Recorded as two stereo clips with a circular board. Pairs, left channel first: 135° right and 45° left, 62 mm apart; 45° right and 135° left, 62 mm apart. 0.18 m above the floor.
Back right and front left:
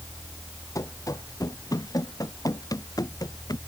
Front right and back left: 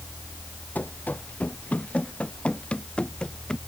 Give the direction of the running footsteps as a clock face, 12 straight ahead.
4 o'clock.